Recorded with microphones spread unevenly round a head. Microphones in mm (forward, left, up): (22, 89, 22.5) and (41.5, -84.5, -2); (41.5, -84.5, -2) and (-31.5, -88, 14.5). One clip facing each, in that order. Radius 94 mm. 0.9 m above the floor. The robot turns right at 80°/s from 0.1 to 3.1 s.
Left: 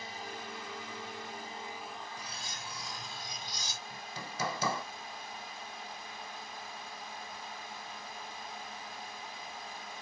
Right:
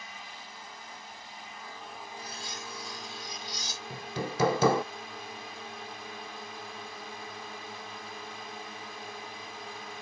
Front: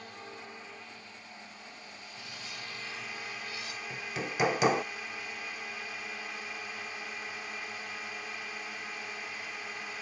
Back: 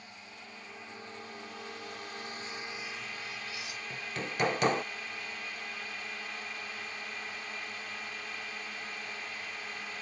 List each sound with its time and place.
0.0 s a drone: 40° left; by 10.0 s 80° right
2.2 s cutlery clinking: 25° left; by 3.8 s 100° left
3.9 s hammering: 95° right